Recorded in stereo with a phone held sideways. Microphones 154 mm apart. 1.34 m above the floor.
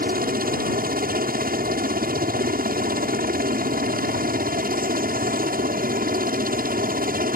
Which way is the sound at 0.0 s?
70° right (ahead or behind).